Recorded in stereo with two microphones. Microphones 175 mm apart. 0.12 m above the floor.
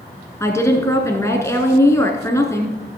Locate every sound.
0.4 s a woman speaking: 15° left (ahead or behind), 1.7 m